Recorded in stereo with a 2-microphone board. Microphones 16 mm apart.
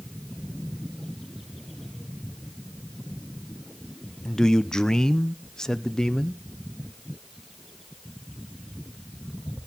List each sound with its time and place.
4.2 s a man speaking: 40° left (ahead or behind), 0.6 m